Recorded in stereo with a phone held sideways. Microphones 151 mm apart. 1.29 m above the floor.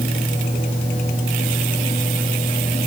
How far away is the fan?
About 4 m.